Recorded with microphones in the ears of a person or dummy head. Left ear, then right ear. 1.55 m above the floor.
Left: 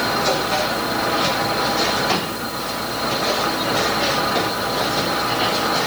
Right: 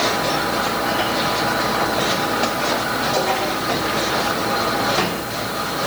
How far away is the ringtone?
I don't hear a ringtone.